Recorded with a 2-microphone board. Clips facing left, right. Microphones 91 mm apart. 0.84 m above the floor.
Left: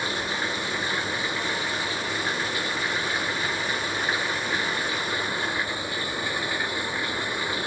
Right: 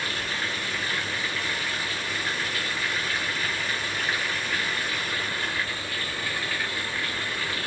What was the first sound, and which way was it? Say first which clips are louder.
Running water: left 3 dB; 20° left (ahead or behind).